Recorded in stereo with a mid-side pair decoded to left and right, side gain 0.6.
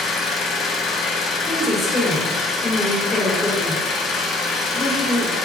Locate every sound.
0.0 s an engine running: 50° left, 1.5 m
1.4 s a woman speaking: 30° left, 3 m